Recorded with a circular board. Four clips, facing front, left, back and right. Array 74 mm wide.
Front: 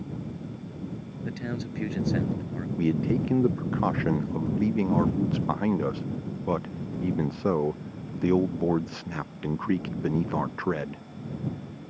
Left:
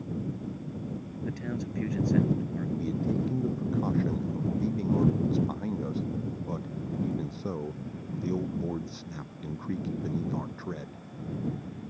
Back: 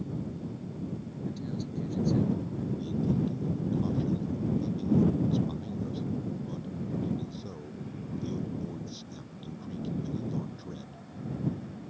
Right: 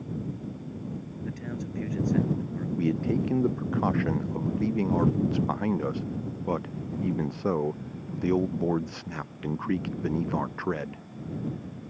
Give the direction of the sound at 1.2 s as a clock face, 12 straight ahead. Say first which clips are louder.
Left 2 dB, front 4 dB; 12 o'clock.